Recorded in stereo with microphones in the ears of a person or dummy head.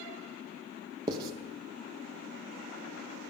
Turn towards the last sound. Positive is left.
turn(degrees=-20)  # may be behind; listen again after turning